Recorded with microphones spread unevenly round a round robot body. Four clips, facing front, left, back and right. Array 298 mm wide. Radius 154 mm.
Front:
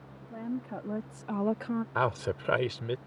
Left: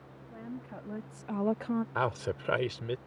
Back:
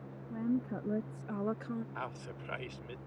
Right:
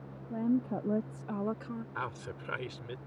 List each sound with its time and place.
0.3 s a woman speaking: 105° right; by 1.9 s 60° left
1.9 s a man speaking: 35° left